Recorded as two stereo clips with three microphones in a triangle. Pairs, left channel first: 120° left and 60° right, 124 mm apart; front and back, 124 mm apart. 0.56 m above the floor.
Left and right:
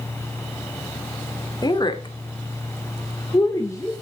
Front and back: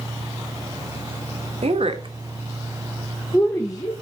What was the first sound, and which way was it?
A woman speaking, 170° left.